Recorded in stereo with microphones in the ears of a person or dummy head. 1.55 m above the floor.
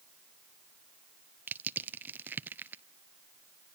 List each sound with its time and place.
1.5 s crushing: 10° right (ahead or behind), 0.5 m